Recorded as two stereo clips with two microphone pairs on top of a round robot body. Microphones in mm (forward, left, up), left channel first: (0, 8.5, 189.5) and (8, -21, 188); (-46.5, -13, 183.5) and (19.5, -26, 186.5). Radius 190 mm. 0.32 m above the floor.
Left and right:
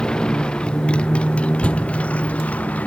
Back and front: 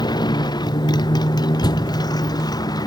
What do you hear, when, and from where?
0.0 s a motorcycle: 170° left; by 2.9 s 145° left
1.6 s a door slam: 155° left